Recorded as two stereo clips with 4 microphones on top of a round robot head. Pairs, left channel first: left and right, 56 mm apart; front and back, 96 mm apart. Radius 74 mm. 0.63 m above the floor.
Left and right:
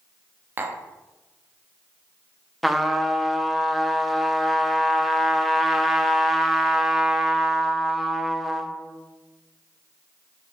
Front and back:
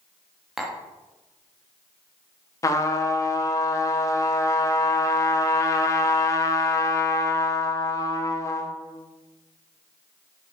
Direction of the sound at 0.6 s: 95° right.